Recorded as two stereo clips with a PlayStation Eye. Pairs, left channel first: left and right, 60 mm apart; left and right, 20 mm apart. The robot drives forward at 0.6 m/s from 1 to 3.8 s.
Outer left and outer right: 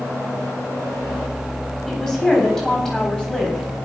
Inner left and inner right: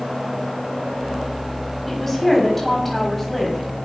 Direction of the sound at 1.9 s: 10° left (ahead or behind).